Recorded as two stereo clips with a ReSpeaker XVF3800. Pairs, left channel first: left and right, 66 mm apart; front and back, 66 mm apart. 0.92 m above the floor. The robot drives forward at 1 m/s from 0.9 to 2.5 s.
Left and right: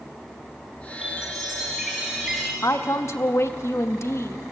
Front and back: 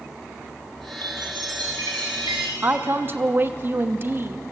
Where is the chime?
170° right, 5.5 m.